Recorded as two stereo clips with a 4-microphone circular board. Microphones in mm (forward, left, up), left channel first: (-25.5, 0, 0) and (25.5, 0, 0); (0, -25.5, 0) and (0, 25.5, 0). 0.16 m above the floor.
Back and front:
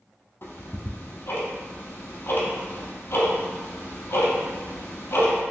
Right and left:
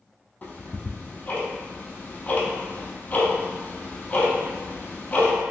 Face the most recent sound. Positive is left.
turn(degrees=-150)